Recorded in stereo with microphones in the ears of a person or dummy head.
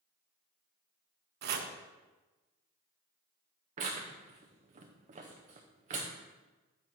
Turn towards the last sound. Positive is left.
turn(degrees=-35)  # may be behind; listen again after turning